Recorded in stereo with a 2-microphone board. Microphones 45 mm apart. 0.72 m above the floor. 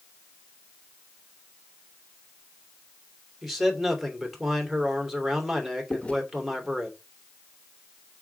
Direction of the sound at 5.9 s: 25° left (ahead or behind).